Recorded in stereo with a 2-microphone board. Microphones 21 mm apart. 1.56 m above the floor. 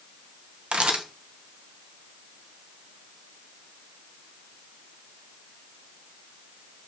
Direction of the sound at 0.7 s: 50° right (ahead or behind).